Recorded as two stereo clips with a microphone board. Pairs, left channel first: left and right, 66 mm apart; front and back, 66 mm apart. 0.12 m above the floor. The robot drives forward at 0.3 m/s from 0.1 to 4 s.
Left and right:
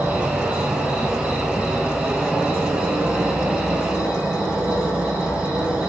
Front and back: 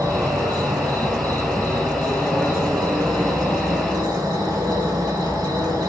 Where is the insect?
155° right, 2.5 m; by 5.9 s 165° right, 3.5 m.